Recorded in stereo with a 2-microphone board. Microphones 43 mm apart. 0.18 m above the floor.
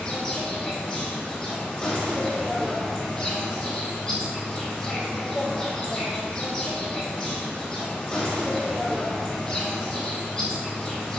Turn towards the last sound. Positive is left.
turn(degrees=15)  # may be behind; listen again after turning